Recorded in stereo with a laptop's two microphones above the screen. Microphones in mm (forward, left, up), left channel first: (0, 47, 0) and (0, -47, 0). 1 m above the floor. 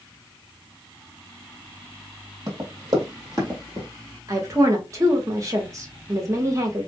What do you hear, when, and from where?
2.5 s running footsteps: 40° right (ahead or behind), 1.5 m
4.3 s a woman speaking: 35° right (ahead or behind), 0.9 m